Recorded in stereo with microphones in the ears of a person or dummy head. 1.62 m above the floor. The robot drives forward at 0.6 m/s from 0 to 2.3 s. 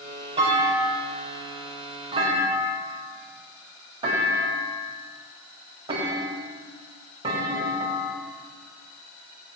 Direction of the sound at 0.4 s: 30° right (ahead or behind).